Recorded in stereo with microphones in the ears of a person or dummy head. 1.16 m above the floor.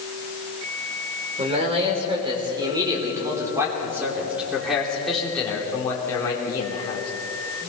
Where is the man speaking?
35° right (ahead or behind), 4 m; by 7.1 s 25° left (ahead or behind), 3.5 m.